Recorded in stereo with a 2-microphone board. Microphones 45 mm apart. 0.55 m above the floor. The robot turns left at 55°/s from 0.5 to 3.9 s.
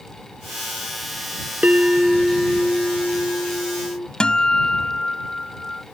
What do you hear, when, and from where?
1.6 s a bell: 145° right; by 4.1 s 90° left
4.2 s a guitar: 20° left (ahead or behind)